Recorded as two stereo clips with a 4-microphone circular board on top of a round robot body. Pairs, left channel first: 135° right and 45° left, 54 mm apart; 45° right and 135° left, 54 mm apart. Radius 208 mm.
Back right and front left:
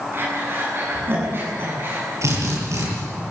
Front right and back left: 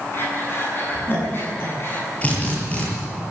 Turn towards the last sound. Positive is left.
turn(degrees=15)